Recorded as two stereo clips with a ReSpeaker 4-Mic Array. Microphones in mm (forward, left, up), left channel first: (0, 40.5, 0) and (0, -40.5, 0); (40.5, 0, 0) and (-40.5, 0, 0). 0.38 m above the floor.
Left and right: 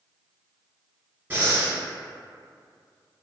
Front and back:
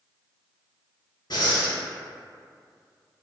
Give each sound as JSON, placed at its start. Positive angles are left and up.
{"t": 1.3, "sound": "breathing", "azimuth_deg": -25, "distance_m": 0.9}